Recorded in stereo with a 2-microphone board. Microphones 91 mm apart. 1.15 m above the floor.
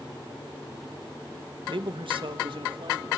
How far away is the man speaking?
About 1.0 m.